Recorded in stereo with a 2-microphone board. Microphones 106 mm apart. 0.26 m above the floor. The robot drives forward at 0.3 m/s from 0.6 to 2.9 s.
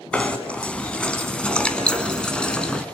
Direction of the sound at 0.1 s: 10° left (ahead or behind).